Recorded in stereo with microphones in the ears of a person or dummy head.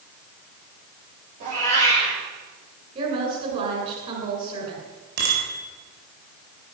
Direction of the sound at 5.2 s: 55° right (ahead or behind).